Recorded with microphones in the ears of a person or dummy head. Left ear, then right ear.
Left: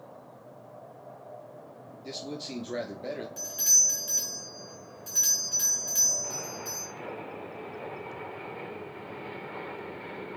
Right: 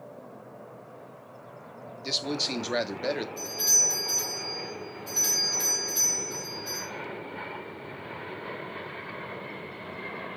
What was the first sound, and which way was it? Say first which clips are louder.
A man speaking: right 9 dB; 50° right (ahead or behind).